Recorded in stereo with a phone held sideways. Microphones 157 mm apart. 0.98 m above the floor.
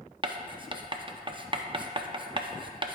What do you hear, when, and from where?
0.2 s writing: 30° right (ahead or behind), 0.5 m